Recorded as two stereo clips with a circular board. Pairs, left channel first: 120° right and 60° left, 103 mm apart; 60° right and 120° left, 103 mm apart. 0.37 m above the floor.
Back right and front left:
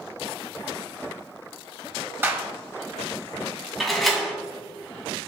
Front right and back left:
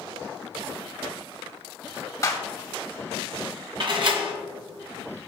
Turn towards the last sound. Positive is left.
turn(degrees=150)